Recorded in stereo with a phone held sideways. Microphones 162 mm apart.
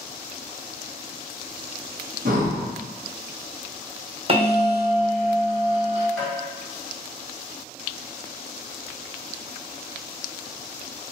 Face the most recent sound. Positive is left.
turn(degrees=5)  # may be behind; listen again after turning